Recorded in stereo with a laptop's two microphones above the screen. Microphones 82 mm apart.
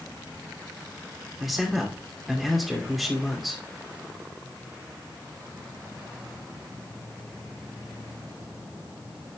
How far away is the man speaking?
About 2.5 m.